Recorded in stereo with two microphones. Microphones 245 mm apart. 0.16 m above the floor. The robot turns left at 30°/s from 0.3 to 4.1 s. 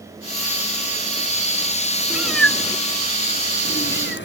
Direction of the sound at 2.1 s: 5° right (ahead or behind).